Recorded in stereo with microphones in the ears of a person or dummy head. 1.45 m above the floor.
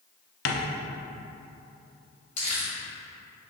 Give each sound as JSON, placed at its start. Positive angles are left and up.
{"t": 0.5, "sound": "tapping", "side_deg": 65, "distance_m": 0.7}
{"t": 2.4, "sound": "crumpling", "side_deg": 30, "distance_m": 1.6}